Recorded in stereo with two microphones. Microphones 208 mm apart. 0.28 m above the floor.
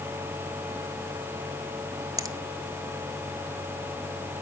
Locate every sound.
2.2 s a finger snap: 15° right (ahead or behind), 1.2 m